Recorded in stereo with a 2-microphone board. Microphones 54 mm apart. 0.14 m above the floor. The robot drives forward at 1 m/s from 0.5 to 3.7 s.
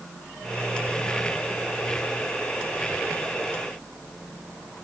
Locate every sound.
Only background noise.